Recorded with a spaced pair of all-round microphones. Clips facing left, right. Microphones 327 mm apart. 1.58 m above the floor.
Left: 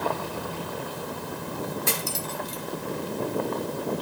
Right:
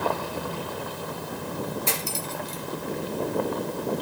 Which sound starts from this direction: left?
Cutlery clinking, at 1.9 s.